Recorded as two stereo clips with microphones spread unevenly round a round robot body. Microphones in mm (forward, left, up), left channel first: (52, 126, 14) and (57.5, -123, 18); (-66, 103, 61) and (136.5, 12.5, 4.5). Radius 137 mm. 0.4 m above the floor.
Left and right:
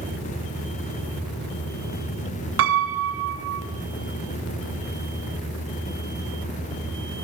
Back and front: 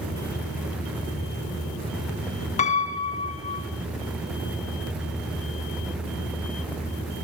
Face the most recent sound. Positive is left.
turn(degrees=-135)